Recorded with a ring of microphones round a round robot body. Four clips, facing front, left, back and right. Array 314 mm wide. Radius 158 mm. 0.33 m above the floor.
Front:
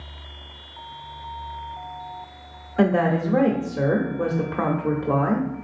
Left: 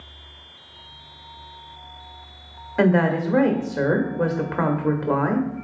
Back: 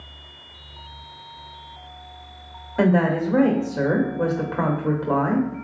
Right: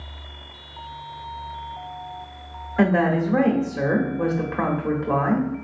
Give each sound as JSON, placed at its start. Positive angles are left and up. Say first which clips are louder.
{"t": 2.8, "sound": "a woman speaking", "louder": "even, back 1 dB", "azimuth_deg": 100, "distance_m": 0.9}